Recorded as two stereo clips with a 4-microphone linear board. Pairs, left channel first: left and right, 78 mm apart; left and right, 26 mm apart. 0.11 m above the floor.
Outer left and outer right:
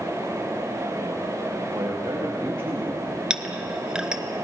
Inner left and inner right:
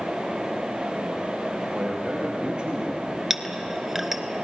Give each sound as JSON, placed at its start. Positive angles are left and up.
{"t": 1.7, "sound": "a man speaking", "side_deg": -75, "distance_m": 9.5}
{"t": 3.3, "sound": "a clink", "side_deg": -10, "distance_m": 1.0}